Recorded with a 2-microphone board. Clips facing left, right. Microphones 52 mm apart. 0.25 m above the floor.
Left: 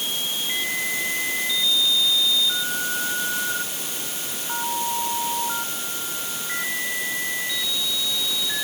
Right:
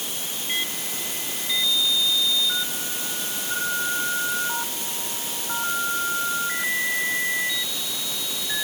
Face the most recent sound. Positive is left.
No sound to turn to.